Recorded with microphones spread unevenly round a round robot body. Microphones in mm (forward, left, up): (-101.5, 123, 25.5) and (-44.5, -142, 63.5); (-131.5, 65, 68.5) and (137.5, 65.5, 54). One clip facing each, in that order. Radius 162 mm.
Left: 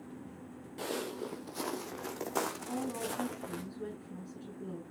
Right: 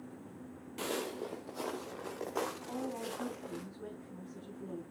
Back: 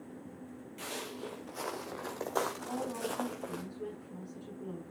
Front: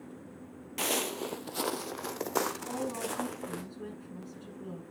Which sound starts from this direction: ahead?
Footsteps, at 0.8 s.